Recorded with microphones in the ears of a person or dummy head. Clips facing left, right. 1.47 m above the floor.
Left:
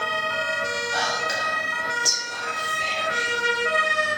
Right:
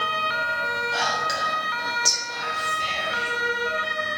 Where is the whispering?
Centre (ahead or behind), 0.7 m.